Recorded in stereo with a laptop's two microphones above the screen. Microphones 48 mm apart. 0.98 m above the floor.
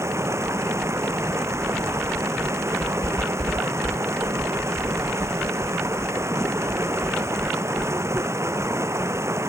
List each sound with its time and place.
0.0 s running water: 65° right (ahead or behind)